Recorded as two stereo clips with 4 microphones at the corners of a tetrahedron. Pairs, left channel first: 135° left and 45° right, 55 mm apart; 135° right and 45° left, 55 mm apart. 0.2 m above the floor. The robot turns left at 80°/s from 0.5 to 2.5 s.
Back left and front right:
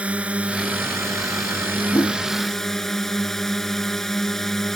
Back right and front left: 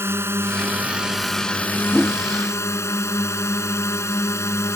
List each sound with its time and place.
0.0 s a drone: 15° left; by 4.8 s 145° right
1.9 s a whoosh: 150° left; by 2.2 s 125° left